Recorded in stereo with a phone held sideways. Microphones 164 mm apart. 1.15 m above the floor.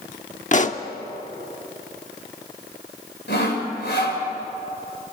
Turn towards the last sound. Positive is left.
turn(degrees=85)